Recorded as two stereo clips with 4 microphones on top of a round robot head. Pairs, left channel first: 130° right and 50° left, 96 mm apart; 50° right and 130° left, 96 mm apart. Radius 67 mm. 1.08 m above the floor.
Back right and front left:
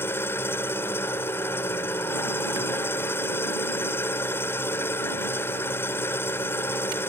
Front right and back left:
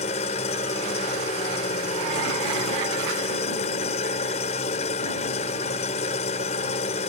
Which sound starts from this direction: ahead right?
An engine running, at 0.0 s.